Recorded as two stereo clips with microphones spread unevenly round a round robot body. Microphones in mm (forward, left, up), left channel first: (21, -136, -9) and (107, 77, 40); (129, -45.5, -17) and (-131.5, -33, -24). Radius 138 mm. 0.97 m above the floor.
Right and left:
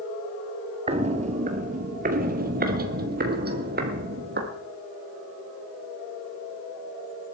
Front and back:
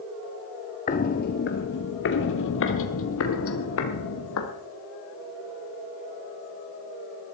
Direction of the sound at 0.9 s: 40° left.